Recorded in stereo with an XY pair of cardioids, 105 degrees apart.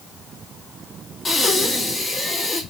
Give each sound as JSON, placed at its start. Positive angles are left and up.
{"t": 1.2, "sound": "breathing", "azimuth_deg": 35, "distance_m": 1.3}